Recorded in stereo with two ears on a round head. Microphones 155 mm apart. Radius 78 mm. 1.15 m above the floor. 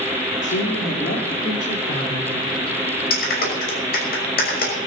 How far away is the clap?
About 6 m.